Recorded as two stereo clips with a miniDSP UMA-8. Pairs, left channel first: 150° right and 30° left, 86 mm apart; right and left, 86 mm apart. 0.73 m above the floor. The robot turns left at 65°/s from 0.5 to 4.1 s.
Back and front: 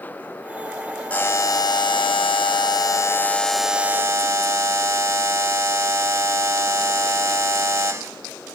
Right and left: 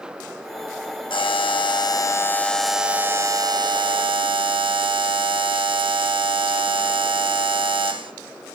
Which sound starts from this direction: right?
A buzzer, at 1.1 s.